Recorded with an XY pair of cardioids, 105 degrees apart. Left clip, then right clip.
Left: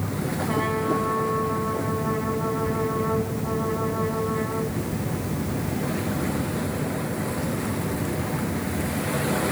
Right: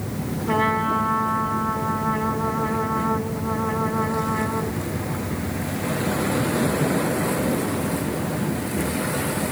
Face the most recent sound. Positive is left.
turn(degrees=-55)